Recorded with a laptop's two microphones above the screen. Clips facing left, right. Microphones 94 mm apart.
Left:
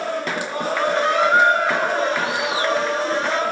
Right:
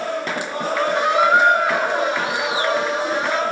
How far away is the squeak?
About 1.3 m.